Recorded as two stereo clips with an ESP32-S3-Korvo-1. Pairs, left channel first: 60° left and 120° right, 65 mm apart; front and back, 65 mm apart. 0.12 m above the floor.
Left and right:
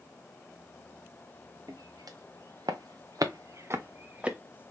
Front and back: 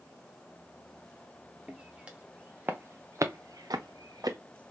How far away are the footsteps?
About 1.3 m.